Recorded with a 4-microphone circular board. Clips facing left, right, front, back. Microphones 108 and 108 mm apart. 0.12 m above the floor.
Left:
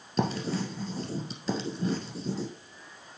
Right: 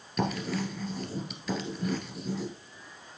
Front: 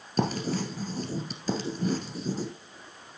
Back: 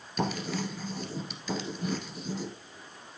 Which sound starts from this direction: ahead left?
Writing, at 0.2 s.